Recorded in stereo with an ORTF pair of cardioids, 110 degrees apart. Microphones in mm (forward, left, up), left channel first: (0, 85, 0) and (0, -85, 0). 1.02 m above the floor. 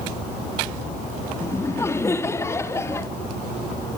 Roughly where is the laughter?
Ahead.